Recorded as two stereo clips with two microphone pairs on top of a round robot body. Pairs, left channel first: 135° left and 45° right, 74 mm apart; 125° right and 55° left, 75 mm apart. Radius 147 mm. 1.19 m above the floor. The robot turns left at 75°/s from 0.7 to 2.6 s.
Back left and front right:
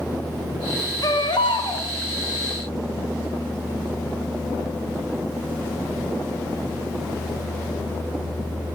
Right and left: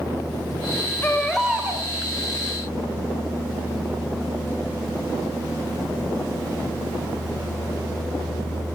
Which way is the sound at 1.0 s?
170° left.